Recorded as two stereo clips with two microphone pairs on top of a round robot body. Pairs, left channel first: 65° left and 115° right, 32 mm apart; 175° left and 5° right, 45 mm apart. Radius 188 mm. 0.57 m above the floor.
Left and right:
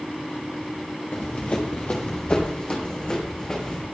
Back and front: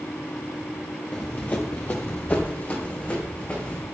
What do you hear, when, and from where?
1.1 s running footsteps: 110° left, 0.7 m; by 3.8 s 125° left, 4 m